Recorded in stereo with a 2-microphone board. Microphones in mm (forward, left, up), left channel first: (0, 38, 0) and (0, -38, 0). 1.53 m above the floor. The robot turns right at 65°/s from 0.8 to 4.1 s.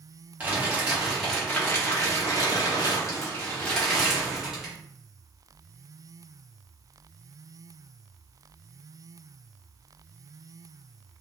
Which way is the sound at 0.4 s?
25° right.